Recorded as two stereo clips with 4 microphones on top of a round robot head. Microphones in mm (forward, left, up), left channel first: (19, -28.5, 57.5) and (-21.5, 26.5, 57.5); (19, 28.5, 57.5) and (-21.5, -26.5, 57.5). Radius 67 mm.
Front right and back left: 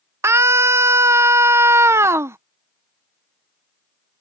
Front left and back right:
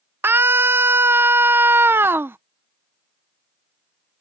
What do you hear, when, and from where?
0.2 s a scream: 175° left